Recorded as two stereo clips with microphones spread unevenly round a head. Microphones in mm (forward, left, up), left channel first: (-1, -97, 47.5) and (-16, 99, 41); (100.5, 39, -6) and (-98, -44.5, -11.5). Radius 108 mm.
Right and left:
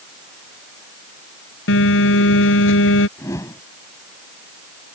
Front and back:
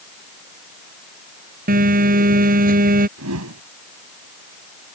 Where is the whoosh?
160° right.